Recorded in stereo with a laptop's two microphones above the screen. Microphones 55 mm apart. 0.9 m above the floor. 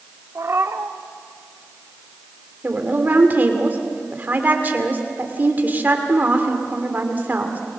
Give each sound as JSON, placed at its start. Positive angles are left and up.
{"t": 0.3, "sound": "a cat meowing", "side_deg": -60, "distance_m": 0.9}
{"t": 2.6, "sound": "a woman speaking", "side_deg": -35, "distance_m": 2.0}